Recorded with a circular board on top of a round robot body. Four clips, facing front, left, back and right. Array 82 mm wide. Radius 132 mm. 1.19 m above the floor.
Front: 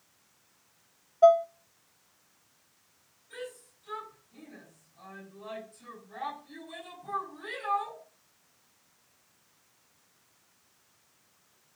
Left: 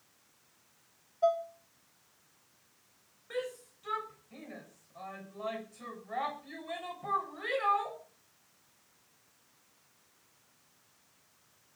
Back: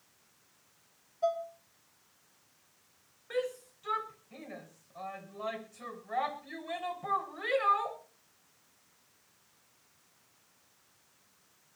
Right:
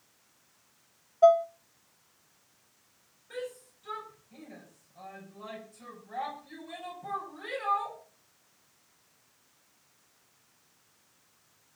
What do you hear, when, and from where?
1.2 s dishes clattering: 35° right, 0.6 m
3.3 s a shout: 155° left, 7 m